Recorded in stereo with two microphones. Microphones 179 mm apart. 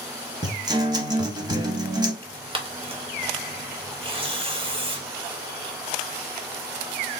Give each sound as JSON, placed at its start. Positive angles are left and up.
{"t": 0.4, "sound": "a guitar", "side_deg": -25, "distance_m": 0.7}
{"t": 2.2, "sound": "tearing paper", "side_deg": -30, "distance_m": 0.7}